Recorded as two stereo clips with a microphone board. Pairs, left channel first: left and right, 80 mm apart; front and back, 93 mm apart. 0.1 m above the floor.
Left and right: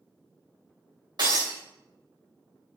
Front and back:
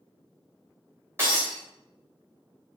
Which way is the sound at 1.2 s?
120° right.